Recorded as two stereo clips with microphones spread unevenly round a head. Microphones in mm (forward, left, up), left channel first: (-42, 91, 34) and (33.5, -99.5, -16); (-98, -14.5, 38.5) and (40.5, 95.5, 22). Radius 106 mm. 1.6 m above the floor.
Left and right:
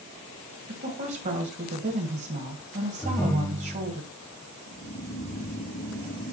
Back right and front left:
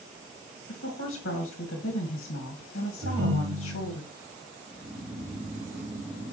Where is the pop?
I don't hear a pop.